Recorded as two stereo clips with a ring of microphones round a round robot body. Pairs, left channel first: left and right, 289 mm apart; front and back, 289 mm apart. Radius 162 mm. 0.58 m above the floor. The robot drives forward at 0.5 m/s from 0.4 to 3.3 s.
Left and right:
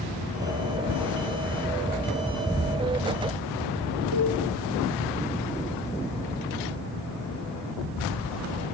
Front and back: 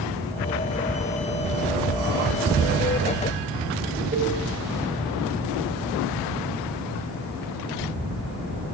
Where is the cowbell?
115° right, 4 m.